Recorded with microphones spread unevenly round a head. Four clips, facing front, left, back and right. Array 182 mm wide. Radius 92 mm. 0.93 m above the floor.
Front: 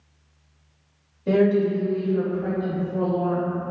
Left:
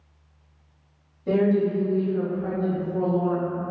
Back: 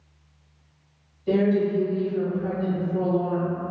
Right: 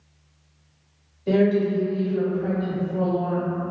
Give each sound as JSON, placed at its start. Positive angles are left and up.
{"t": 1.3, "sound": "a woman speaking", "azimuth_deg": 0, "distance_m": 1.7}